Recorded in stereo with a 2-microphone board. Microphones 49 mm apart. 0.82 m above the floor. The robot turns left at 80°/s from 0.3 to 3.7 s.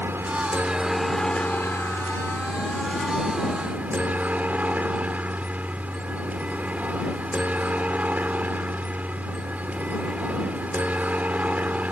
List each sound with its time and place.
0.0 s a helicopter: 125° right; by 11.9 s 35° right